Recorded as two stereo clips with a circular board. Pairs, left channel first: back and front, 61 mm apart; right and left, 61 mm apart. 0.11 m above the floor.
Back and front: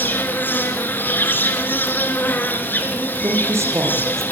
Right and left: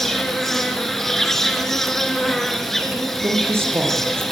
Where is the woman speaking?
40° left, 5.5 m.